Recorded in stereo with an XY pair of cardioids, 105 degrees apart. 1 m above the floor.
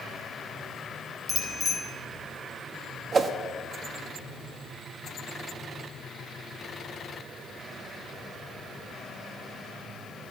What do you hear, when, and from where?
1.3 s a bicycle bell: 20° left, 3.5 m
3.1 s a whoosh: 40° right, 1.2 m